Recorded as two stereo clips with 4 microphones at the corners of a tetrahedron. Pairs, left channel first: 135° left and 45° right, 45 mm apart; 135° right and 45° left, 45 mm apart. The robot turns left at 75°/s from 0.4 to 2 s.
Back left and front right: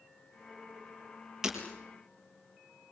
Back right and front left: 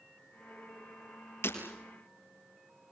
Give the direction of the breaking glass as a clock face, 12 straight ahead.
4 o'clock.